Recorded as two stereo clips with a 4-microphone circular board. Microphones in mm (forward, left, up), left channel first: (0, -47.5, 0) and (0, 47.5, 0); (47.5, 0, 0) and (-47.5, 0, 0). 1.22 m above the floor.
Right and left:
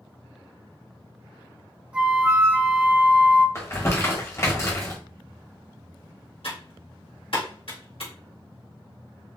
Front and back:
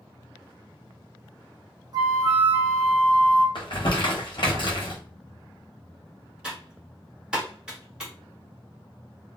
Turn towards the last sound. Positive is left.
turn(degrees=-100)